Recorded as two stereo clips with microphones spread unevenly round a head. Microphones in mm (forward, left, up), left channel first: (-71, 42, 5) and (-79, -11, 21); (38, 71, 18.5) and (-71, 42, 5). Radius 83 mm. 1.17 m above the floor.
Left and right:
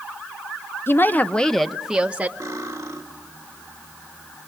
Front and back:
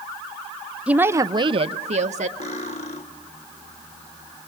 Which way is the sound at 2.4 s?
35° right.